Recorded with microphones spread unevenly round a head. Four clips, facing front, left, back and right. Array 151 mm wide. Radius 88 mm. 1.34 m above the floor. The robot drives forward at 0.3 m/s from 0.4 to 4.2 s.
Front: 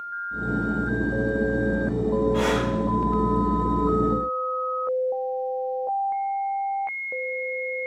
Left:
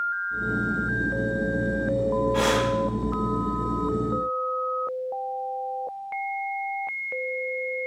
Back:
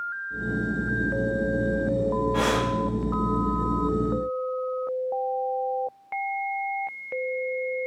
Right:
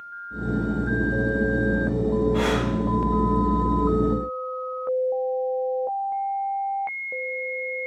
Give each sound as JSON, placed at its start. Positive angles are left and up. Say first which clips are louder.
{"t": 2.3, "sound": "breathing", "louder": "left 1 dB, front 1 dB", "azimuth_deg": -155, "distance_m": 1.7}